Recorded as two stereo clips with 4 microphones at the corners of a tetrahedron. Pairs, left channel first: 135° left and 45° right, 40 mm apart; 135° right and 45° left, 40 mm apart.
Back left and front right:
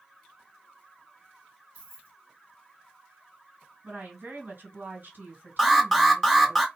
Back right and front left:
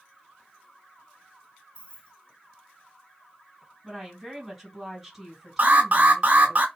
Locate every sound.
1.8 s keys jangling: 75° right, 2 m
3.8 s a woman speaking: 40° right, 2.5 m
5.6 s an alarm: 45° left, 1.6 m